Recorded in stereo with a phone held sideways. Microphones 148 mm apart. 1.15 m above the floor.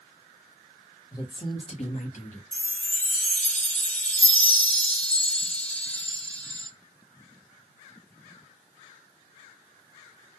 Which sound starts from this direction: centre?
A chime, at 2.5 s.